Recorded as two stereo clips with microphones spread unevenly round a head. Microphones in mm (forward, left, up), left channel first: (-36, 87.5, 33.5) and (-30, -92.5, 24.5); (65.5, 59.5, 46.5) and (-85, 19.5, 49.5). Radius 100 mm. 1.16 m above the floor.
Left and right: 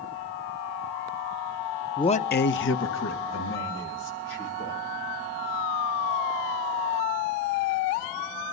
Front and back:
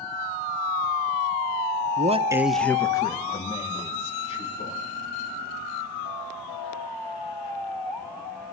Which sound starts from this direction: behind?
A man speaking, at 2.0 s.